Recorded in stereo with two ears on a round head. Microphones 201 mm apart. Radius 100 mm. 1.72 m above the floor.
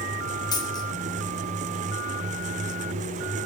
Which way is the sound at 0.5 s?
20° left (ahead or behind).